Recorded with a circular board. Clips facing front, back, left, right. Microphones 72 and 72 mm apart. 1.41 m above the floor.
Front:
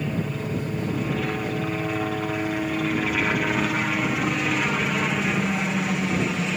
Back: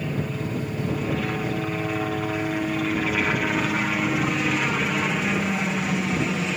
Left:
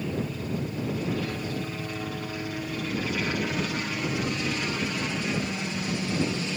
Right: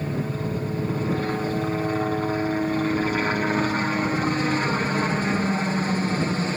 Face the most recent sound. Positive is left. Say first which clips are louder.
# even, right 4 dB
turn(degrees=-90)